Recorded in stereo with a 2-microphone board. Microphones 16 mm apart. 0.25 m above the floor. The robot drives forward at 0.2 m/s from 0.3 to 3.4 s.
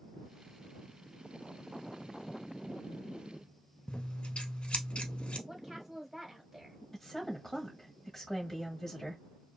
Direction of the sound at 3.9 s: 75° left (ahead or behind).